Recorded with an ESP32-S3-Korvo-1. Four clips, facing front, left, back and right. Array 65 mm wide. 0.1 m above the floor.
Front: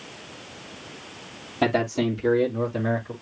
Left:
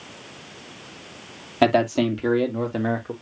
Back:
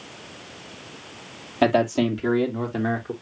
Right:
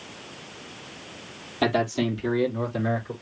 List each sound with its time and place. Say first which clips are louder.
1.6 s a man speaking: left 5 dB, back 3 dB; 105° left, 3.5 m; by 3.1 s 120° left, 4 m